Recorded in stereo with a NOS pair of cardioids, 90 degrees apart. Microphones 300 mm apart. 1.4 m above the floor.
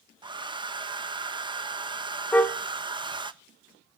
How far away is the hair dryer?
About 1.3 m.